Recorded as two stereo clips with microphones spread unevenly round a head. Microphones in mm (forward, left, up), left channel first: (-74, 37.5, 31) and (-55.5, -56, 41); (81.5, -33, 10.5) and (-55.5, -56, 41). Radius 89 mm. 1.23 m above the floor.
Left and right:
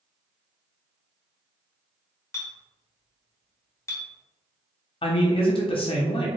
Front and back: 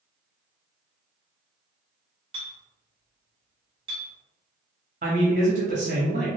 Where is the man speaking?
140° left, 0.8 m.